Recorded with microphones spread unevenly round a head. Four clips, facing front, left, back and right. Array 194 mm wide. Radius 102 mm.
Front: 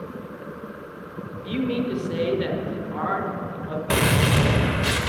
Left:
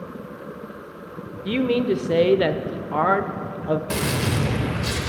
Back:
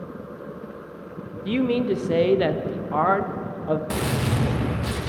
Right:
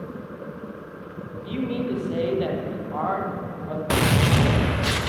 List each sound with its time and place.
1.4 s a man speaking: 110° left, 0.7 m
3.9 s a gunshot: 35° right, 0.9 m